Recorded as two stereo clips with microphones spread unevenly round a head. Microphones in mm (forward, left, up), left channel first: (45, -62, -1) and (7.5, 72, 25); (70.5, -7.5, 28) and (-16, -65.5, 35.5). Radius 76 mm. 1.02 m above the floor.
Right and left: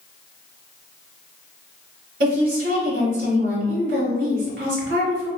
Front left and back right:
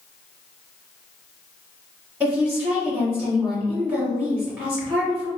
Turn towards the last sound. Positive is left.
turn(degrees=130)